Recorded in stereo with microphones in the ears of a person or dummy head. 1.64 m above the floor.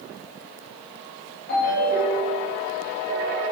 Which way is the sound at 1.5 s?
45° left (ahead or behind).